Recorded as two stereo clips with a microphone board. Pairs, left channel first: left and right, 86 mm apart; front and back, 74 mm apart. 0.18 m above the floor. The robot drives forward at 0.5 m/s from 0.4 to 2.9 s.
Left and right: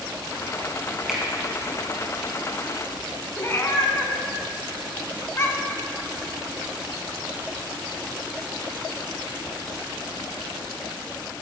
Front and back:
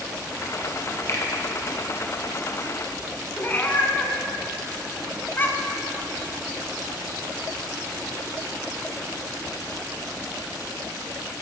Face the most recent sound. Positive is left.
turn(degrees=50)